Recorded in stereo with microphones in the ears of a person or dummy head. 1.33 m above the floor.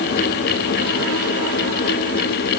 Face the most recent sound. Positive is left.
No sound to turn to.